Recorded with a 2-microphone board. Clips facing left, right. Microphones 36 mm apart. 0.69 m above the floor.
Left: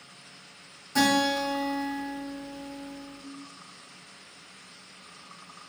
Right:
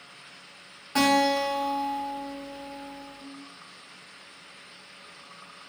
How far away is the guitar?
About 1.5 m.